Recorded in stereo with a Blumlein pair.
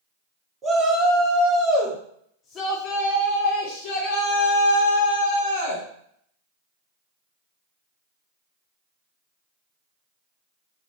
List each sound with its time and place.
0.6 s a shout: 15° right, 1.8 m; by 5.8 s 70° left, 2.5 m